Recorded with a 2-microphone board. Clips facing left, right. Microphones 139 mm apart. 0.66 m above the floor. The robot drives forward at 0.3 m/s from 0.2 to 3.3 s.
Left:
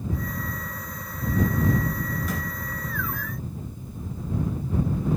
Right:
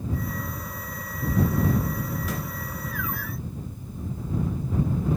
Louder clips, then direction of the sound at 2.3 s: Left 1 dB; 5° right (ahead or behind).